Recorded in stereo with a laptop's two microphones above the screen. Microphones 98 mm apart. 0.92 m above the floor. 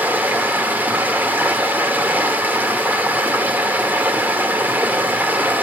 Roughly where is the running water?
Centre.